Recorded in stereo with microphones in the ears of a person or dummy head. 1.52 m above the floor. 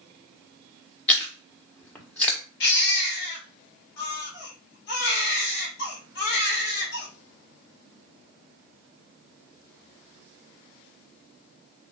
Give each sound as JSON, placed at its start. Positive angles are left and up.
{"t": 1.1, "sound": "chewing", "side_deg": 5, "distance_m": 0.8}
{"t": 2.6, "sound": "a baby crying", "side_deg": 60, "distance_m": 1.5}